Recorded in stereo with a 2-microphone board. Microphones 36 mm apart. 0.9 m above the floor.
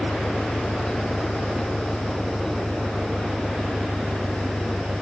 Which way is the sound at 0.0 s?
25° right (ahead or behind).